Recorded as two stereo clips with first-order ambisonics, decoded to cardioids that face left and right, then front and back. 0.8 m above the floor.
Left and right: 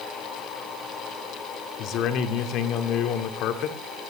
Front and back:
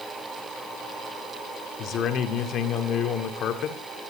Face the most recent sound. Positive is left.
turn(degrees=50)